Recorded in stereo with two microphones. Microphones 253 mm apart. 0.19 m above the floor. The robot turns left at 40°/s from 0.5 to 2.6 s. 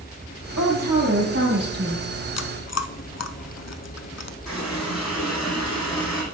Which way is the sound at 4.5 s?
Centre (ahead or behind).